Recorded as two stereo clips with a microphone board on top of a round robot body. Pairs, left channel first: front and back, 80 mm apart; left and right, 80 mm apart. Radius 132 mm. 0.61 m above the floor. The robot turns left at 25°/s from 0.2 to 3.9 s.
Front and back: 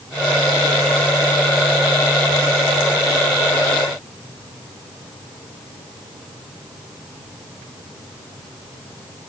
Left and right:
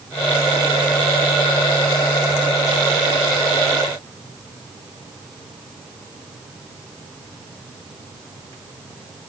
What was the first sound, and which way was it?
Only background noise.